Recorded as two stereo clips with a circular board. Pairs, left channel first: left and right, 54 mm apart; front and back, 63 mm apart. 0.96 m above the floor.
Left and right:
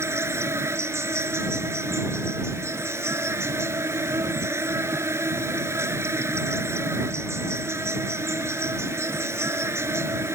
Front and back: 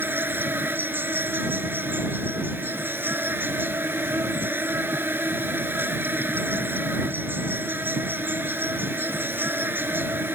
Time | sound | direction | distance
0.0 | an insect | 125° right | ?